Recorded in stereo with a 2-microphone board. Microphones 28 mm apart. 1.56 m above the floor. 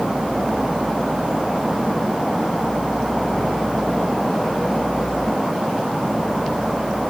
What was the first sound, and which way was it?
Only background noise.